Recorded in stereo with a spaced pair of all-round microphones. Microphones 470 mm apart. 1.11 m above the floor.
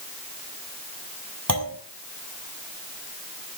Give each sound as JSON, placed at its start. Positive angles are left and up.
{"t": 1.5, "sound": "a clunk", "side_deg": -40, "distance_m": 3.5}